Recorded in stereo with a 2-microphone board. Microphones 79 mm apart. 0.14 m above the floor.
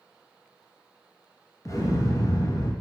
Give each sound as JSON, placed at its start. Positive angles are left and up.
{"t": 1.6, "sound": "an explosion", "side_deg": 45, "distance_m": 1.4}